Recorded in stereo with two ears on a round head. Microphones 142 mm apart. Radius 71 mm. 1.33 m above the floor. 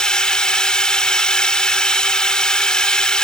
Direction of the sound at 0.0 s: 5° left (ahead or behind).